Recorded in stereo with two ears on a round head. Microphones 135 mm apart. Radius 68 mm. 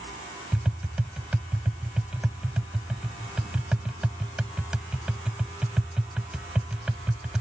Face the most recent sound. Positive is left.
turn(degrees=-5)  # may be behind; listen again after turning